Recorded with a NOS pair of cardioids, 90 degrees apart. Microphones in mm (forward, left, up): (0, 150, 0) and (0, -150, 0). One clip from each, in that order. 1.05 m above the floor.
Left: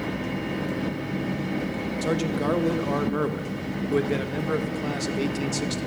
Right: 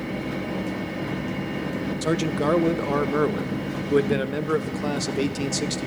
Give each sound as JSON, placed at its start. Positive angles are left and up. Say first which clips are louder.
{"t": 2.0, "sound": "a man speaking", "louder": "right 2 dB", "azimuth_deg": -15, "distance_m": 0.8}